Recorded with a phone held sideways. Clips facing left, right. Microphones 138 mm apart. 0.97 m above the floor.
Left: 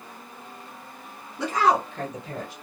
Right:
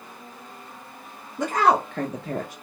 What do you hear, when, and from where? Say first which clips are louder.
1.4 s a woman speaking: right 2 dB; 45° right (ahead or behind), 0.9 m; by 2.5 s 60° right (ahead or behind), 0.6 m